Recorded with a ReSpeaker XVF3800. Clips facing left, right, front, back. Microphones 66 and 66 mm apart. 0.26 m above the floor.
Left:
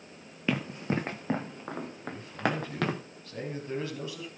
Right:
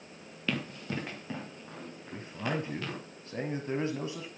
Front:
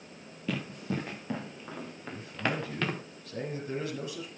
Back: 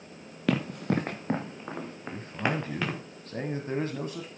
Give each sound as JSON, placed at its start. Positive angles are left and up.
{"t": 0.5, "sound": "running footsteps", "azimuth_deg": 160, "distance_m": 2.0}
{"t": 2.1, "sound": "a man speaking", "azimuth_deg": -145, "distance_m": 1.7}